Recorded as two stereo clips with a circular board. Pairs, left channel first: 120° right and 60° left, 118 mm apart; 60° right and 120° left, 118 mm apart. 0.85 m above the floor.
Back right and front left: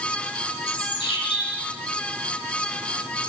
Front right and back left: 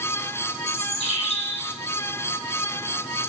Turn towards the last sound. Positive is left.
turn(degrees=-80)